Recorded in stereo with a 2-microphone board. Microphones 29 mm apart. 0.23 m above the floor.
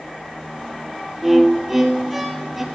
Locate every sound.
1.2 s a violin: 5° right (ahead or behind), 2.0 m